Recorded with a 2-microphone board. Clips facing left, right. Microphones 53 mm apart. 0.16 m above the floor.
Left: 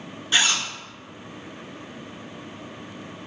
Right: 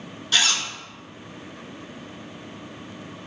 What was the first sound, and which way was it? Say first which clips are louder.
A zipper: left 1 dB; 20° left (ahead or behind).